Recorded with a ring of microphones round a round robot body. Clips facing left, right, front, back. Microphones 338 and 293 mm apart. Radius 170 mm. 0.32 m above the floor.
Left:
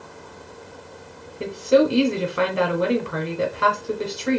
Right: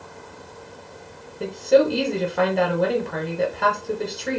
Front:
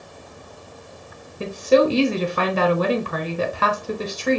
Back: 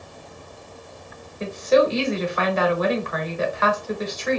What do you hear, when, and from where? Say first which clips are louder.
1.4 s a woman speaking: even, front 2 dB; 15° left, 1.0 m